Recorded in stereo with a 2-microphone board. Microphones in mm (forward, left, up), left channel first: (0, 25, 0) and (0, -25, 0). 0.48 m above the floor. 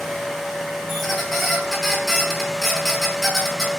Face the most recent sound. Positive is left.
turn(degrees=5)  # may be behind; listen again after turning